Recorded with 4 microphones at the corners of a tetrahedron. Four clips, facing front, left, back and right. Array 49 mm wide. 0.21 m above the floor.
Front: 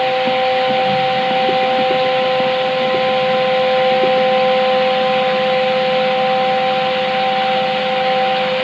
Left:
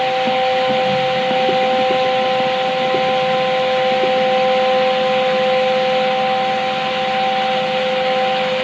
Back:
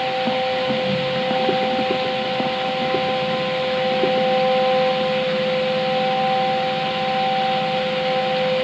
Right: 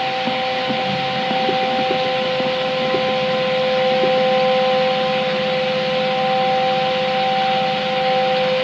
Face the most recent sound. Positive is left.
No sound to turn to.